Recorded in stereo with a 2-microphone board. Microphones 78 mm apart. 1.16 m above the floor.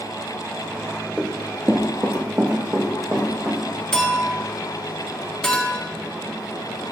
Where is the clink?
10° left (ahead or behind), 1.3 m.